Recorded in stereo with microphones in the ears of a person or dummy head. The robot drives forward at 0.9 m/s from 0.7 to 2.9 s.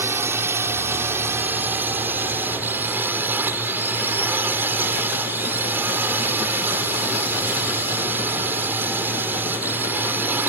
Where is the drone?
10° right (ahead or behind).